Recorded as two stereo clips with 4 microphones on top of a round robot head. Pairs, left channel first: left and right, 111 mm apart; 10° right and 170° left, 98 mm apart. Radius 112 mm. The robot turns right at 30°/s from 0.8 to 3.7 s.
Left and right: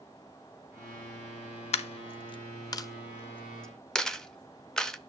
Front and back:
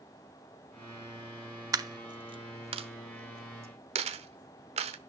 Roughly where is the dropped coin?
Behind left.